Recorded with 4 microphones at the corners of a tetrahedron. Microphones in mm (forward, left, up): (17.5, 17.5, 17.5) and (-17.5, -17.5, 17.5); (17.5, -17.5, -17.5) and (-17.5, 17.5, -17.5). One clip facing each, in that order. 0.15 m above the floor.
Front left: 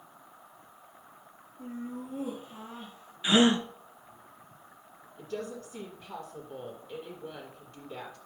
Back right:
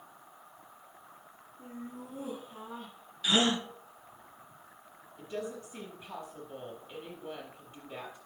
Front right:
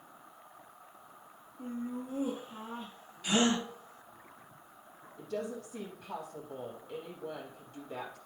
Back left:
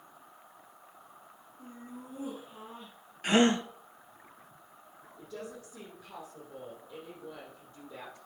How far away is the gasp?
About 0.9 m.